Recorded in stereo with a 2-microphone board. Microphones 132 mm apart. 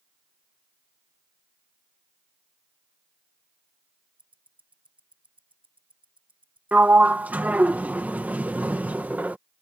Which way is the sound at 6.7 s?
10° right (ahead or behind).